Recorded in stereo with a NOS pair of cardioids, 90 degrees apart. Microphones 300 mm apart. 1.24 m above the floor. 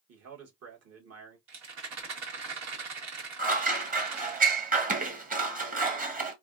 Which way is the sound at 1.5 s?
60° right.